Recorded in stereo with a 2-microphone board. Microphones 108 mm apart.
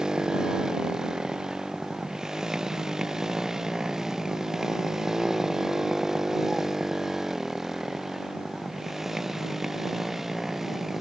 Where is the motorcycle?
5° right (ahead or behind).